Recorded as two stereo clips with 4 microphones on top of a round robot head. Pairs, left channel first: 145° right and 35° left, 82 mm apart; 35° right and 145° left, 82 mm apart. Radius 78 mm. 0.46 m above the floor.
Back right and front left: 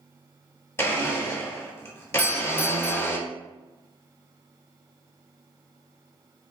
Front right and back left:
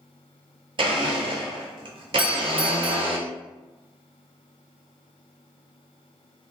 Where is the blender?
160° left, 1.1 m.